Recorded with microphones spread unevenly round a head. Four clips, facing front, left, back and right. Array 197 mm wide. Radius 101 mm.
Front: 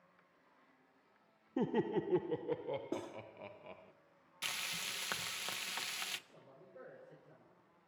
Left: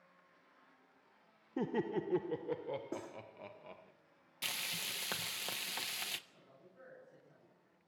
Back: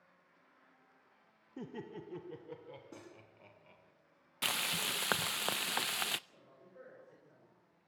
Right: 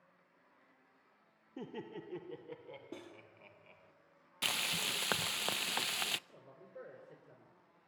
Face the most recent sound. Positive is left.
turn(degrees=-80)